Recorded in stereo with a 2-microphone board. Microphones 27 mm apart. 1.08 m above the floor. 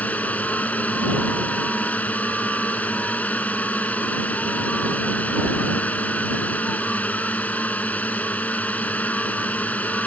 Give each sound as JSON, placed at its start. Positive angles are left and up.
{"t": 0.0, "sound": "a drone", "side_deg": 70}